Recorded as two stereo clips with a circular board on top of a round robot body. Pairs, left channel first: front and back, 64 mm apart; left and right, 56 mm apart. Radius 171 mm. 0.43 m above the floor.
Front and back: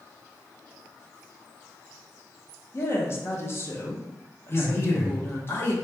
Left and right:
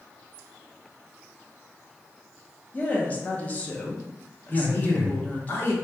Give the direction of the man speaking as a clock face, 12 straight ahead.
10 o'clock.